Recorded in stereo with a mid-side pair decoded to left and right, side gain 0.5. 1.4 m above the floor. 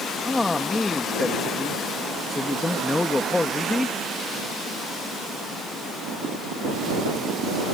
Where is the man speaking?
15° left.